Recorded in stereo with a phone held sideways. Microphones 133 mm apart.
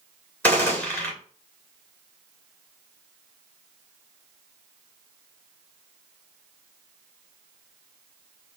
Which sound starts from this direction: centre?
A gunshot, at 0.4 s.